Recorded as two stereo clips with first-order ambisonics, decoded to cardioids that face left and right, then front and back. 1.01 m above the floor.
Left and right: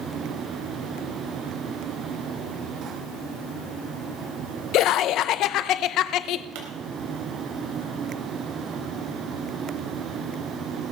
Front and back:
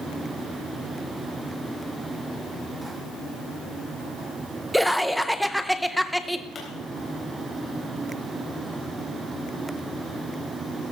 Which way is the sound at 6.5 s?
70° right.